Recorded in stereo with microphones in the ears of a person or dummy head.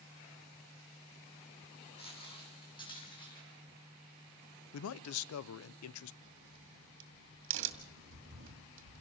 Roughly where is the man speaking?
Left.